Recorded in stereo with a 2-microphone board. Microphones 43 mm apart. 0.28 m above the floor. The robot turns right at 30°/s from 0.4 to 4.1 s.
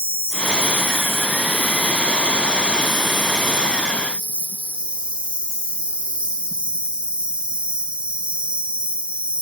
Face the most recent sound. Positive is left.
turn(degrees=-150)